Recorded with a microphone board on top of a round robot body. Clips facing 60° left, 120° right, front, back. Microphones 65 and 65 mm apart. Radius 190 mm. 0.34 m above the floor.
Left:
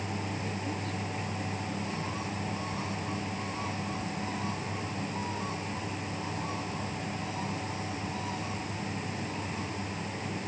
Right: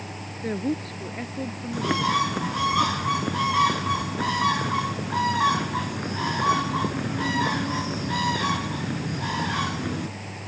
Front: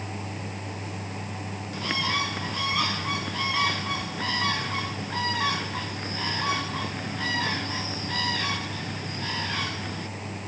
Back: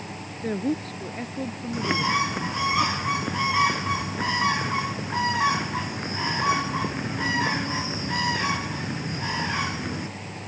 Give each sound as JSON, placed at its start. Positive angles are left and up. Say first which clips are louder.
{"t": 0.4, "sound": "a woman speaking", "louder": "right 7 dB, back 9 dB", "azimuth_deg": -160}
{"t": 1.7, "sound": "a bird", "louder": "right 12 dB, back 4 dB", "azimuth_deg": -110}